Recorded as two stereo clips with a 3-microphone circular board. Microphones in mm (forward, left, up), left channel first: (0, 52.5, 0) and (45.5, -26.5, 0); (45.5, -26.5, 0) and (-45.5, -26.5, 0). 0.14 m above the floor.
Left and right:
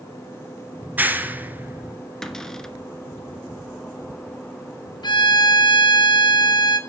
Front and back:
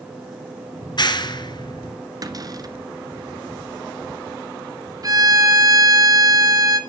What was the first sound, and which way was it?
A clap, 5° left.